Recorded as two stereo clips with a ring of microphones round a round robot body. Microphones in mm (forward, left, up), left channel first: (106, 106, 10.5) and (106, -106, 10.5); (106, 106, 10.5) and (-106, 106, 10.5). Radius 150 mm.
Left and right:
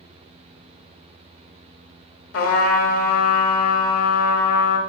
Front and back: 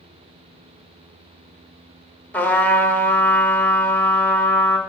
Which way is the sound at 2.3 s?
85° left.